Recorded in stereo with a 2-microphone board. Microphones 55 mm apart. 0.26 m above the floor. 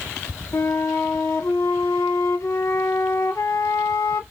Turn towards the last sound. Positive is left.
turn(degrees=65)  # may be behind; listen again after turning